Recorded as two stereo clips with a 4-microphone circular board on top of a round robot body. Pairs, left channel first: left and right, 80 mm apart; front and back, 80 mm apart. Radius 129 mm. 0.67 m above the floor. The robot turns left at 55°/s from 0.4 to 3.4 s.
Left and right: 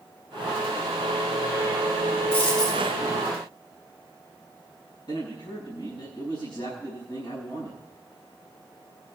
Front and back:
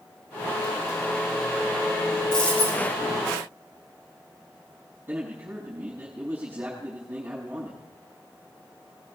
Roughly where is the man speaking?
Left.